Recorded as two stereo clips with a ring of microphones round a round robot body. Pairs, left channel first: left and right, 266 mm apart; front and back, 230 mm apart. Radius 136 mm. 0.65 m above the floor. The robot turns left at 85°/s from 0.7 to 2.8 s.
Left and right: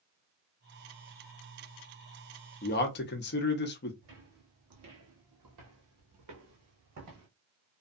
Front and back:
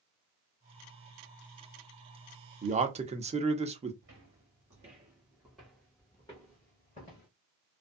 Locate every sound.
2.6 s a man speaking: 140° left, 0.8 m; by 3.9 s 125° left, 0.8 m
4.0 s footsteps: 135° right, 1.3 m; by 7.3 s 60° right, 1.7 m